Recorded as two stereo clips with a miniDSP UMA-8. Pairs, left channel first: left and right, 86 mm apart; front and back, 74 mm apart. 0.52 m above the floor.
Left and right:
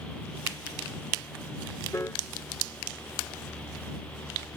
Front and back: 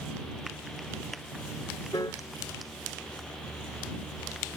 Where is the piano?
30° left.